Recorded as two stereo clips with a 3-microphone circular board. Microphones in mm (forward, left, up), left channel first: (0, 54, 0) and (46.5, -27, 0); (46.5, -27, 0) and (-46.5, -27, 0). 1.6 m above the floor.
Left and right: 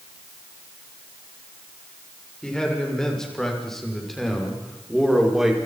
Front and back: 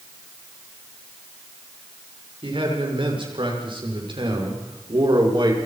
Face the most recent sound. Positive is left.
turn(degrees=-145)